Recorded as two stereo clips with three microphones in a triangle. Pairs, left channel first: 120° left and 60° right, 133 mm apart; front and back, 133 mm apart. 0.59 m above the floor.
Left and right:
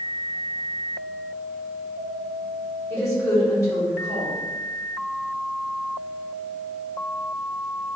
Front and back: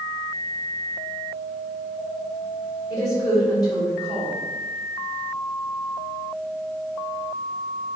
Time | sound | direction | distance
2.9 | a woman speaking | 55° left | 1.4 m